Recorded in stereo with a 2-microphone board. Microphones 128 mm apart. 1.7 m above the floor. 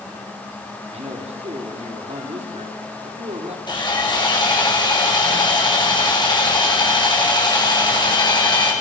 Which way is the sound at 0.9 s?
55° right (ahead or behind).